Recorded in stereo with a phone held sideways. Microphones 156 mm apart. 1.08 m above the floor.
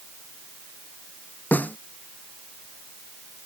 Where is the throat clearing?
I don't hear throat clearing.